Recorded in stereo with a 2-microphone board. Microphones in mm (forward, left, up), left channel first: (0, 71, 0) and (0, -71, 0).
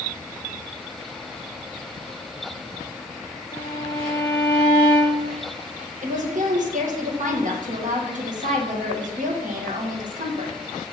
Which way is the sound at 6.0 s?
55° right (ahead or behind).